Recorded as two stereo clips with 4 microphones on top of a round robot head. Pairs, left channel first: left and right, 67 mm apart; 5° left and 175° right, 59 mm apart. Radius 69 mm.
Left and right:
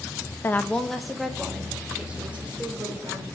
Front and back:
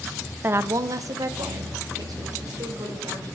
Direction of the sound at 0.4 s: 140° left.